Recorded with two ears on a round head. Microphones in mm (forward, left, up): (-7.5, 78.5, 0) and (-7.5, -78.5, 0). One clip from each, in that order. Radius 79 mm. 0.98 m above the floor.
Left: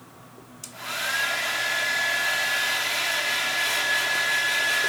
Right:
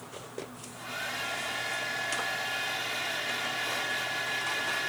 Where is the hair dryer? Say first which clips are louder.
Left 9 dB; 50° left (ahead or behind).